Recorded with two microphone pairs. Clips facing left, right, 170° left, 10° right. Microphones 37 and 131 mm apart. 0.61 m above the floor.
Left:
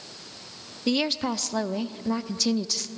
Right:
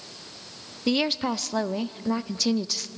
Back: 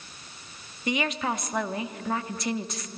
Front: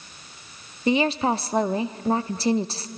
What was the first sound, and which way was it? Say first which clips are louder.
A woman speaking: right 1 dB, front 7 dB; 10° right.